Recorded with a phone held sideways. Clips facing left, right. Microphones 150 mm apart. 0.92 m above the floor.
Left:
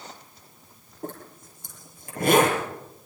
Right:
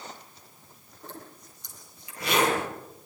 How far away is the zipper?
About 7.5 m.